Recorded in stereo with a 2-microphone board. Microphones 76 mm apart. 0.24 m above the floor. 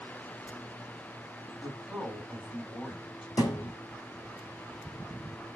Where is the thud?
55° left (ahead or behind), 1.3 m.